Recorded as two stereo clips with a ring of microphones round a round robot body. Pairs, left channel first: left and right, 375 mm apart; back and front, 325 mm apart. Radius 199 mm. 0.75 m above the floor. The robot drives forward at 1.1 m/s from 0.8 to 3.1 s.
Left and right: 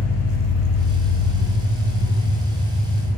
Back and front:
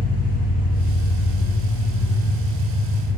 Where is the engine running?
115° left, 3.5 m; by 3.2 s 140° left, 5 m.